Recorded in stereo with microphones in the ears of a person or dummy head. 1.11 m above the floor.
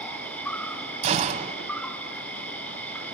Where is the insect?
10° left (ahead or behind), 1.3 m.